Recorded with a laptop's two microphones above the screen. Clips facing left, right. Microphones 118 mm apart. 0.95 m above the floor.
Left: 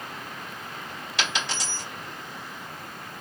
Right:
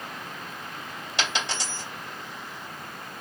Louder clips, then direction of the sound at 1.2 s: Right 1 dB; 25° right (ahead or behind).